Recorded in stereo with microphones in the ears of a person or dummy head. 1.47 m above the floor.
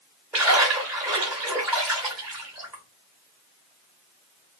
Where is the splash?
5° right (ahead or behind), 1.1 m.